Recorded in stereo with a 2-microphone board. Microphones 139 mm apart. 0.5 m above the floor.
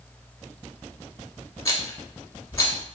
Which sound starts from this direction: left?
A rattle, at 1.6 s.